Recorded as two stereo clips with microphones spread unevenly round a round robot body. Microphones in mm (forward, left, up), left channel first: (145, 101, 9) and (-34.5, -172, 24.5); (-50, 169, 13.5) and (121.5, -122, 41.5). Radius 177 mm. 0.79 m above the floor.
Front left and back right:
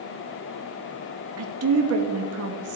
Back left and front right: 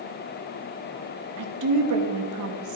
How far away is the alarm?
No alarm in this recording.